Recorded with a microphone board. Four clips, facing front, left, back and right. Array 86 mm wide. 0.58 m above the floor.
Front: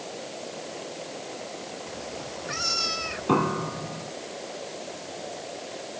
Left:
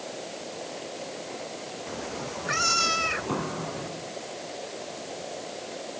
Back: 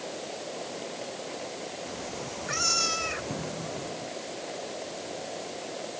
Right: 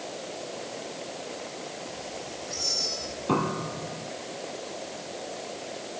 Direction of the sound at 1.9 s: 95° left.